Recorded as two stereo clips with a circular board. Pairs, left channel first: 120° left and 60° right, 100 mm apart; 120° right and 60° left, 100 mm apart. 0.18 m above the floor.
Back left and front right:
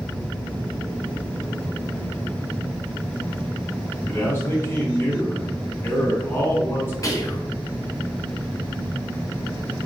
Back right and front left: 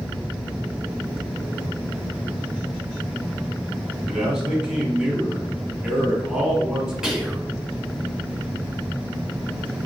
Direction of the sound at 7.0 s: 140° left.